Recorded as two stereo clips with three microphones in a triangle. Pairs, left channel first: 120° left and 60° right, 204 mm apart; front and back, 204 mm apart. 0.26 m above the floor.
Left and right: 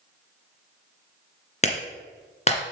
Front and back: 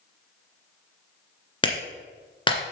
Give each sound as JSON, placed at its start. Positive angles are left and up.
{"t": 1.6, "sound": "a clap", "azimuth_deg": 65, "distance_m": 2.0}